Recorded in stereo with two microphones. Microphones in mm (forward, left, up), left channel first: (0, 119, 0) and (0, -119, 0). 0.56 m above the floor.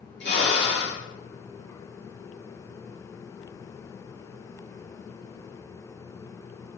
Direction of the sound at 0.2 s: 50° left (ahead or behind).